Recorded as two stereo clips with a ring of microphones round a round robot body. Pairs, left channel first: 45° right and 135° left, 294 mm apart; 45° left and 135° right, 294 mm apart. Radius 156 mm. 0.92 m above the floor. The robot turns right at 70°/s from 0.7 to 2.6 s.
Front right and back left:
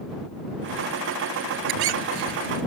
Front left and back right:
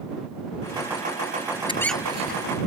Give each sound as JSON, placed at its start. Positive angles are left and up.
{"t": 1.7, "sound": "a squeak", "azimuth_deg": 120}